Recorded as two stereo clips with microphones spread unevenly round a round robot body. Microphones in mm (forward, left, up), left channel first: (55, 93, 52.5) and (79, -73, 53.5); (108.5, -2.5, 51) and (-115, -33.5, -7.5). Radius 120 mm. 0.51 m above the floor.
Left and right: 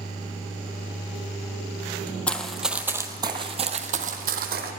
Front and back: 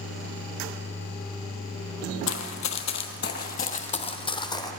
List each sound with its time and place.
2.3 s running footsteps: 15° left, 1.0 m; by 4.7 s 60° right, 1.3 m